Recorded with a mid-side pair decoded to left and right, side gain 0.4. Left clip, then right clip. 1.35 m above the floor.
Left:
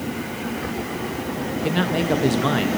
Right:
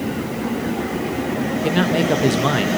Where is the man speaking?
25° right, 1.3 m.